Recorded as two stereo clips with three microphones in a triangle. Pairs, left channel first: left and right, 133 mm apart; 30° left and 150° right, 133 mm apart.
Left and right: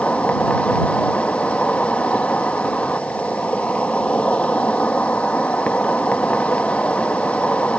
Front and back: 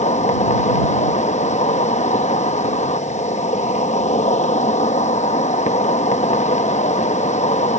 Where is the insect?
10° left.